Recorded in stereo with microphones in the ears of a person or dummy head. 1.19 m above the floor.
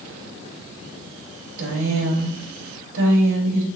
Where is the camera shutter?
I don't hear a camera shutter.